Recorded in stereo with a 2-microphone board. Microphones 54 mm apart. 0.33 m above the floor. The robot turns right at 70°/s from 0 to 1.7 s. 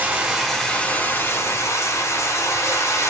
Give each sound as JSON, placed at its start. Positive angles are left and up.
{"t": 0.0, "sound": "running water", "azimuth_deg": -35, "distance_m": 2.0}